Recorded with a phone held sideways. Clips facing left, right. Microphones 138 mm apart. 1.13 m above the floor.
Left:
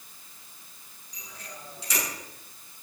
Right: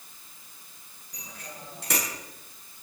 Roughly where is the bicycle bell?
Right.